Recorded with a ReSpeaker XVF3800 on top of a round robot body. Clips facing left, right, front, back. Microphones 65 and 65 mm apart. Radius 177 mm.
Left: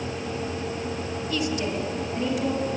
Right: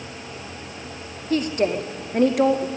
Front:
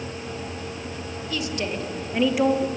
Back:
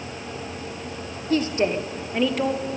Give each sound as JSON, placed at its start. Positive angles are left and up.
{"t": 1.3, "sound": "a woman speaking", "azimuth_deg": -135, "distance_m": 2.0}